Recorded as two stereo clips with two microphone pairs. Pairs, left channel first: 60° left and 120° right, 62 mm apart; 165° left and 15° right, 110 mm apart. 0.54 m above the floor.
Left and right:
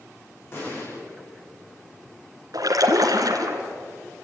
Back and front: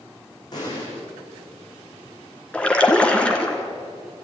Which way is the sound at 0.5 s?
110° left.